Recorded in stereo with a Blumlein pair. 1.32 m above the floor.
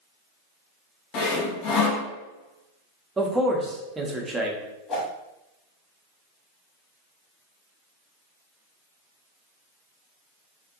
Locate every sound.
1.1 s sawing: 35° left, 0.7 m
3.2 s a man speaking: 10° right, 0.6 m
4.9 s a whoosh: 25° left, 1.0 m